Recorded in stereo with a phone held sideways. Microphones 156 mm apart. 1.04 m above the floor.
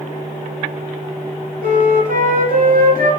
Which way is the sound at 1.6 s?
65° right (ahead or behind).